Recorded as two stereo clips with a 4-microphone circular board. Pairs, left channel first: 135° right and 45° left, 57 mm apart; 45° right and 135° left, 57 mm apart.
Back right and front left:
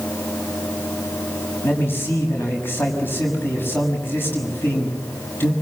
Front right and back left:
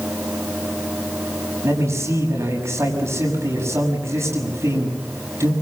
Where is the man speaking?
170° left, 6.5 m.